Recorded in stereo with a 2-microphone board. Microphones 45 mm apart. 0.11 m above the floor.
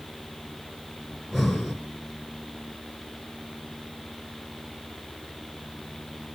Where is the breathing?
Centre (ahead or behind), 1.6 m.